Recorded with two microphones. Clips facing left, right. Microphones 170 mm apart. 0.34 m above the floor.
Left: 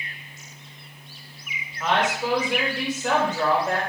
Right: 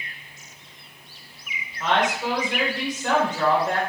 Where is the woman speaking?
10° left (ahead or behind), 0.9 m.